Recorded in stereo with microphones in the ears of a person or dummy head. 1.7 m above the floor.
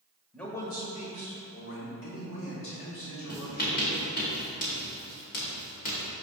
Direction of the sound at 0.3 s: 5° left (ahead or behind).